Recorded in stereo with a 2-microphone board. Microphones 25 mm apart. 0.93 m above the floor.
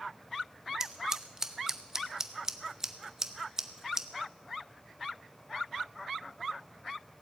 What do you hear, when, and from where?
0.8 s scissors: 20° right (ahead or behind), 0.8 m